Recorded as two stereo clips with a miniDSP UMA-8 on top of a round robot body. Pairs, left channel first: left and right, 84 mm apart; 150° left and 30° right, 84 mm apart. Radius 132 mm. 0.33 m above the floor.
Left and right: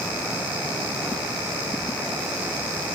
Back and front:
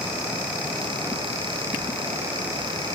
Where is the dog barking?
I don't hear a dog barking.